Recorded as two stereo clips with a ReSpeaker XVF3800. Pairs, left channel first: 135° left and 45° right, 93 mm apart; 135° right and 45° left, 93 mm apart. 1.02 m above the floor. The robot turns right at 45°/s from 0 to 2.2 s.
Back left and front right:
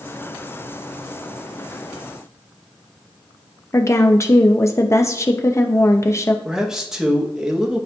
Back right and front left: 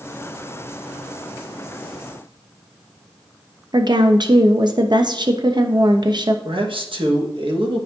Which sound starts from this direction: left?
A woman speaking, at 3.7 s.